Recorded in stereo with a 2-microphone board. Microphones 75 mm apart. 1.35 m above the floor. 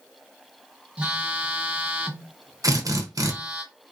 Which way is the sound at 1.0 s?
15° right (ahead or behind).